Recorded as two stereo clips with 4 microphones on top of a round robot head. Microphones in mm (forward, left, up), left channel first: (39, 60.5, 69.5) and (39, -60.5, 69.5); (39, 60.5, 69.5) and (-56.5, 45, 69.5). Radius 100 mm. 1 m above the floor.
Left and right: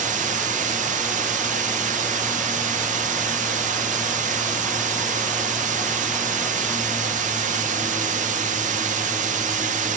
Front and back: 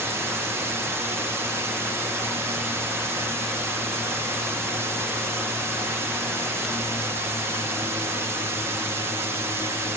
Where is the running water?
105° right, 1.7 m.